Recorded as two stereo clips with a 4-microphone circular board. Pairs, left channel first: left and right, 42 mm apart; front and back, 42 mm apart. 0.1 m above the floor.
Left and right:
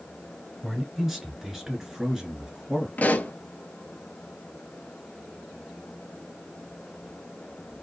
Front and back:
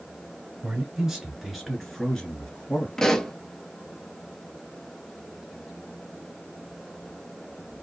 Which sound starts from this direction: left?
A pop, at 3.0 s.